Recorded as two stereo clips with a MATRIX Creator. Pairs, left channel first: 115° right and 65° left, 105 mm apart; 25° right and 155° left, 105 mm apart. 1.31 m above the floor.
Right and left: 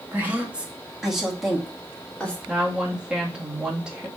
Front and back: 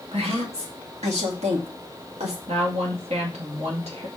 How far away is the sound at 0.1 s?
About 1.9 m.